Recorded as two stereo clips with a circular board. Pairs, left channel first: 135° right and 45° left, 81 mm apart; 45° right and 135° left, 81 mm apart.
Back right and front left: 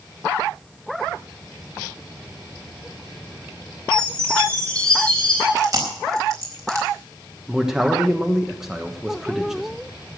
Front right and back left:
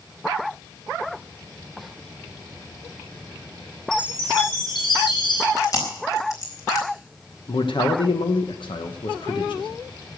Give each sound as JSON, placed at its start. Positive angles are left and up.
{"t": 3.9, "sound": "a chime", "azimuth_deg": -60, "distance_m": 3.5}
{"t": 5.6, "sound": "chewing", "azimuth_deg": 0, "distance_m": 4.0}
{"t": 7.5, "sound": "a man speaking", "azimuth_deg": -40, "distance_m": 1.1}